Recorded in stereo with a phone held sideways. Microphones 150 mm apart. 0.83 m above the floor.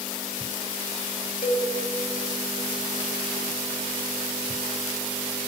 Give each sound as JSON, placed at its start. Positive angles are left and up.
{"t": 1.4, "sound": "a cowbell", "side_deg": 80, "distance_m": 2.5}